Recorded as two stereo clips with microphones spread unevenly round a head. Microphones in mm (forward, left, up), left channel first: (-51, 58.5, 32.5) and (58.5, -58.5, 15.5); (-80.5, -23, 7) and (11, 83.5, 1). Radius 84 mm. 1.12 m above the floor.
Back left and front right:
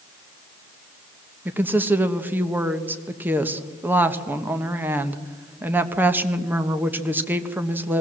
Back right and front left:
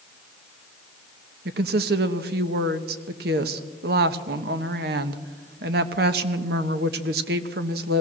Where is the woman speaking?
30° left, 1.2 m.